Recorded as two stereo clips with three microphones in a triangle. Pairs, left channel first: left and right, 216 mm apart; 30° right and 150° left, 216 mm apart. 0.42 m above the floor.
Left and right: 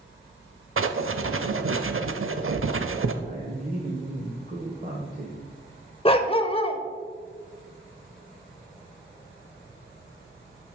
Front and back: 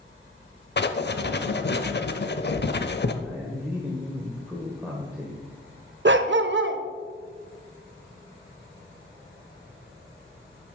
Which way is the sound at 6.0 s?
145° left.